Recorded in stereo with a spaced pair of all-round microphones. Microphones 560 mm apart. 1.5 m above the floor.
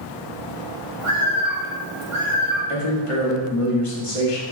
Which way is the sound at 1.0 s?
60° right (ahead or behind).